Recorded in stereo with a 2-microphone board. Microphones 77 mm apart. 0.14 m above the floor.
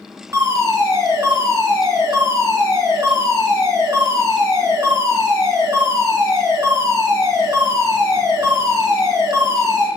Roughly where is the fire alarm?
Right.